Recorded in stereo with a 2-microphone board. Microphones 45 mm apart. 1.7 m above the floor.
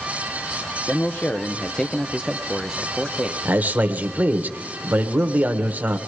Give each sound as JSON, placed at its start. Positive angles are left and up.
{"t": 0.9, "sound": "a man speaking", "side_deg": 50, "distance_m": 0.9}
{"t": 3.5, "sound": "a man speaking", "side_deg": -40, "distance_m": 1.3}